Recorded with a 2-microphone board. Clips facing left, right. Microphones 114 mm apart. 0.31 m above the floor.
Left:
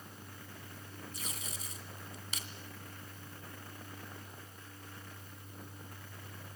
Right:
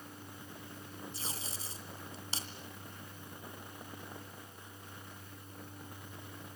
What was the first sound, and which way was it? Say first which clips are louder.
Tape being pulled: right 1 dB; 35° right (ahead or behind).